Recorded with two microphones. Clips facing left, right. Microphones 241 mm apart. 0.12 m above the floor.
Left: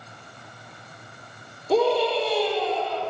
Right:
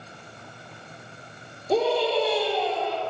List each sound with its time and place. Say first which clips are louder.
1.7 s a scream: left 2 dB; 15° right (ahead or behind), 3.5 m